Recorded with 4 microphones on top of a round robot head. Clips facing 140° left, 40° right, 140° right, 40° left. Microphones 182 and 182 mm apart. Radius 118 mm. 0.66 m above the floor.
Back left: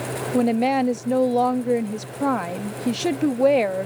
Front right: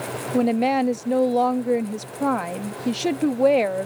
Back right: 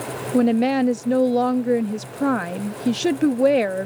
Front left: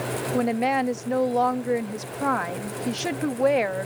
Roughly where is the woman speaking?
Behind right.